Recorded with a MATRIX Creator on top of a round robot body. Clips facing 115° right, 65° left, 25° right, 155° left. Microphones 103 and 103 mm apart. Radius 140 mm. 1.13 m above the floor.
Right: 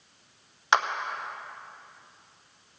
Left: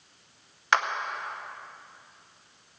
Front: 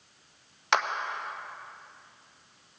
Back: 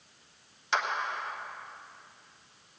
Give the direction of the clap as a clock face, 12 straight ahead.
1 o'clock.